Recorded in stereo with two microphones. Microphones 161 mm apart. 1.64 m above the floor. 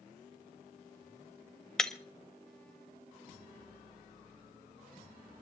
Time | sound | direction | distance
1.8 | breaking glass | 5° left (ahead or behind) | 0.8 m